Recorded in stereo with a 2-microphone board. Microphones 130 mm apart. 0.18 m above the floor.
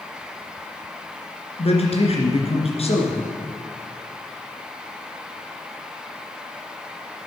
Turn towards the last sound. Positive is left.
turn(degrees=55)  # may be behind; listen again after turning